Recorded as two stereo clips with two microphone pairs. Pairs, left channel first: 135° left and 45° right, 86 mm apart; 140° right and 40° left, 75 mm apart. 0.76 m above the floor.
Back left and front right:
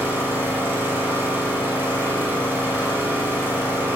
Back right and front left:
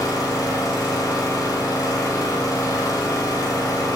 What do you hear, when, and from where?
0.0 s an engine running: 110° right, 1.6 m